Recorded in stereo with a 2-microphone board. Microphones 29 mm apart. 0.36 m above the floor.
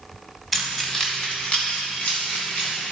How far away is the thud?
I don't hear a thud.